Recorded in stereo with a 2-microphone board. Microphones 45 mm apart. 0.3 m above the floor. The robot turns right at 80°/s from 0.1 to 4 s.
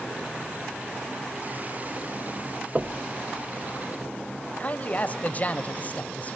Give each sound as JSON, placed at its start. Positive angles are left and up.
{"t": 2.8, "sound": "knocking", "side_deg": -25, "distance_m": 0.7}
{"t": 4.6, "sound": "a man speaking", "side_deg": 35, "distance_m": 1.1}